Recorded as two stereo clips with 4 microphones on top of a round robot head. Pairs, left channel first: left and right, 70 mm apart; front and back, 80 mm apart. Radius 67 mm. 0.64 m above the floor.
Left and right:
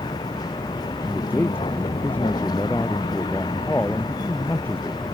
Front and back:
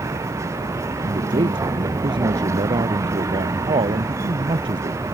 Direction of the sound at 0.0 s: 130° left.